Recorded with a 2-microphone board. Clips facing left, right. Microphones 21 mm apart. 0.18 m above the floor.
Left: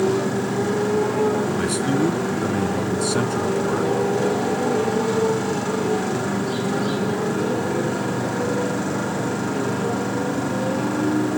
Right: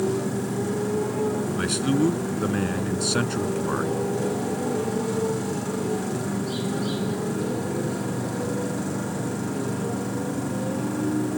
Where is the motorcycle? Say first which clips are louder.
Left 5 dB; 25° left (ahead or behind).